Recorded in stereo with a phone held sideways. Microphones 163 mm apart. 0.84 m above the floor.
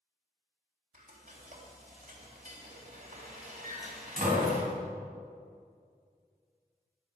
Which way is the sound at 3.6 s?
55° right (ahead or behind).